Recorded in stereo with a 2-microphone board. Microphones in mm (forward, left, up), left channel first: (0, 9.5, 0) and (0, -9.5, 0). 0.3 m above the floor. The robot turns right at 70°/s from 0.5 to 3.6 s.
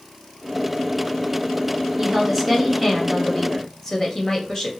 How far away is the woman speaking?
About 1.2 m.